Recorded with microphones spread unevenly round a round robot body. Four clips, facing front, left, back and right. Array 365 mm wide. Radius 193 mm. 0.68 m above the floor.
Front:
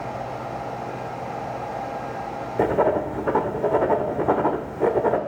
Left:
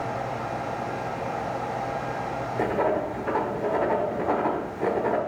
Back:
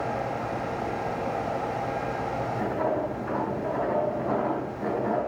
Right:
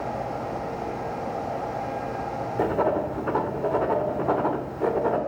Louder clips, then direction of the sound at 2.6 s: Right 1 dB, front 9 dB; 10° right.